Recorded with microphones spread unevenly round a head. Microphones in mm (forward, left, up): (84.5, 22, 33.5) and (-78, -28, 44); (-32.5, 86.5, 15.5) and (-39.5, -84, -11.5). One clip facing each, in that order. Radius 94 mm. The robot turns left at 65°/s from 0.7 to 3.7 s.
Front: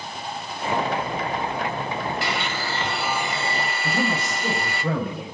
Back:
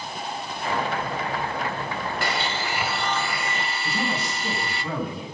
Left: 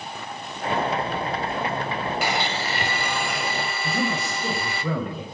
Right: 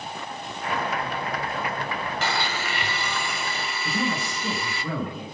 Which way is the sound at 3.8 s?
60° left.